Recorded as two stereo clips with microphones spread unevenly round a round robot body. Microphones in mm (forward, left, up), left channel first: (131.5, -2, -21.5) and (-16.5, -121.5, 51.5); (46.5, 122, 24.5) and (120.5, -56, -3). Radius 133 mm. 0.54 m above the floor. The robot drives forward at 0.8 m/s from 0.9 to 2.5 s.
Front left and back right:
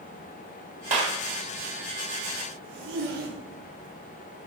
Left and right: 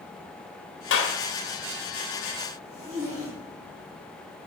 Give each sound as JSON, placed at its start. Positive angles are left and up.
{"t": 0.9, "sound": "a clap", "azimuth_deg": 150, "distance_m": 1.9}
{"t": 2.6, "sound": "a zipper", "azimuth_deg": -145, "distance_m": 8.5}